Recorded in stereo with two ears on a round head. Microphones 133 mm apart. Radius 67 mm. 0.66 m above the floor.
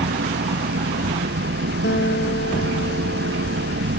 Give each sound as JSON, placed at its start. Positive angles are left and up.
{"t": 0.0, "sound": "an engine running", "side_deg": -85}
{"t": 1.8, "sound": "a guitar", "side_deg": 85}